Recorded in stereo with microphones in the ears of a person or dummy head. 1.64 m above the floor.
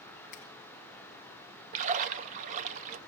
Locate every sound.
0.3 s a finger snap: 50° left (ahead or behind), 1.8 m
1.7 s a splash: 40° right (ahead or behind), 0.8 m